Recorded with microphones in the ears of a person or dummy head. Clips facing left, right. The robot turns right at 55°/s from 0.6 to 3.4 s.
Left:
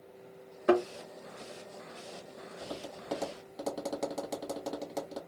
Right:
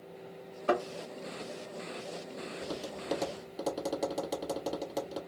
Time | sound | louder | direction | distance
0.7 | a thud | left 4 dB | 15° left (ahead or behind) | 1.1 m
2.6 | tapping | right 1 dB | 55° right (ahead or behind) | 1.5 m